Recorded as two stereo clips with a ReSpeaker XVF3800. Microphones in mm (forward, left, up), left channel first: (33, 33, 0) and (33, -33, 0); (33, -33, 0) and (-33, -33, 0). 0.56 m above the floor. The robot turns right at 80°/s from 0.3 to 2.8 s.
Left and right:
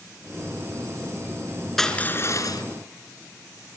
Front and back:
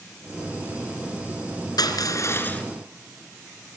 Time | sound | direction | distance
1.8 | crushing | 5° left | 3 m